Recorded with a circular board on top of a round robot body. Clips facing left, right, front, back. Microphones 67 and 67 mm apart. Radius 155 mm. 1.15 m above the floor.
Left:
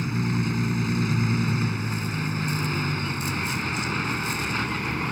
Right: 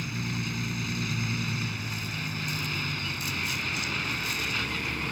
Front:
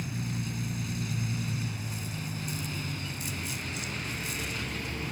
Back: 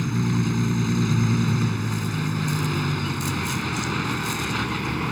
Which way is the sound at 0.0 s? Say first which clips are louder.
Left 7 dB, back 12 dB; 150° left.